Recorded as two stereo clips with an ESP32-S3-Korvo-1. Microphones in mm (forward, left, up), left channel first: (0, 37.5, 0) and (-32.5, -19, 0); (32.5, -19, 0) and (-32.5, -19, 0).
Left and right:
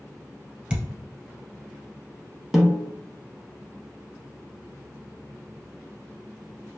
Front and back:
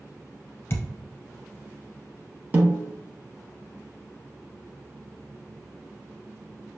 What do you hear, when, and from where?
0.7 s a thud: 50° right, 1.2 m
2.5 s a snare drum: 155° left, 0.6 m